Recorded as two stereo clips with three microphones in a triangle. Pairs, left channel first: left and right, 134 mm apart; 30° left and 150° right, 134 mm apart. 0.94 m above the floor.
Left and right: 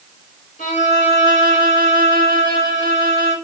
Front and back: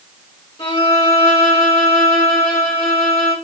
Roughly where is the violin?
Left.